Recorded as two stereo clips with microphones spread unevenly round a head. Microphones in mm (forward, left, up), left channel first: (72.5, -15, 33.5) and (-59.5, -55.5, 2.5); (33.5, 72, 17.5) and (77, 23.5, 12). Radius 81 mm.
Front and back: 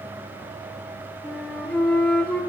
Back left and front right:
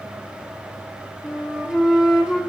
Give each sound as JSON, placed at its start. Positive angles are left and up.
{"t": 1.2, "sound": "a flute", "azimuth_deg": 30, "distance_m": 1.1}